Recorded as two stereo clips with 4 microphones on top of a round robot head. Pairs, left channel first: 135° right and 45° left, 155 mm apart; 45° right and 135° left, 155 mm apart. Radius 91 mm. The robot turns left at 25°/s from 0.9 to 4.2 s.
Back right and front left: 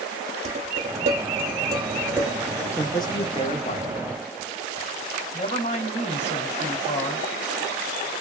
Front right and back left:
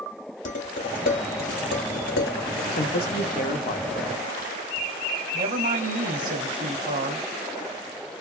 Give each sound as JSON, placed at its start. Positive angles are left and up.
{"t": 0.5, "sound": "dishes clattering", "azimuth_deg": -5, "distance_m": 1.5}
{"t": 2.7, "sound": "a man speaking", "azimuth_deg": -65, "distance_m": 0.9}
{"t": 5.3, "sound": "a woman speaking", "azimuth_deg": 175, "distance_m": 1.9}